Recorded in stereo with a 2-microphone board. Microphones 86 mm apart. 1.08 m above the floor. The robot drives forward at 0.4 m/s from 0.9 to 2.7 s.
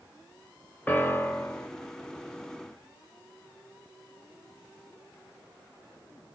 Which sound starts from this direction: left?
A piano, at 0.9 s.